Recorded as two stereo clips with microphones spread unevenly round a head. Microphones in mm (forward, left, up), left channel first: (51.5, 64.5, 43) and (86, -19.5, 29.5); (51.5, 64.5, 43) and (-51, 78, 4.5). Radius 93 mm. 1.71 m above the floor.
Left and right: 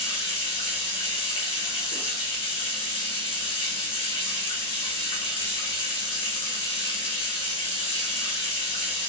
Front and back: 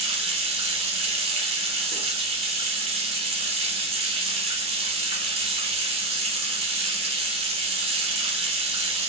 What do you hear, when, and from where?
0.0 s running water: 135° left, 1.0 m